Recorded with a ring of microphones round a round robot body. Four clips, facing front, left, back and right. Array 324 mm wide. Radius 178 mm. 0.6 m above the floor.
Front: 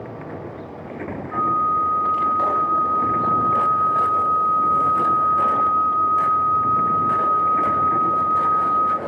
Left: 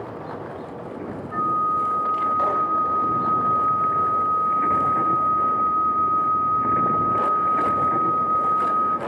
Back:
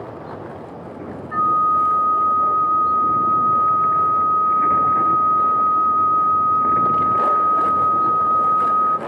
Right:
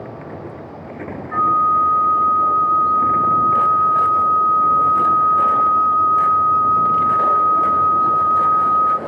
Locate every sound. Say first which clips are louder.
1.3 s a flute: right 7 dB, back 3 dB; 100° right, 1.3 m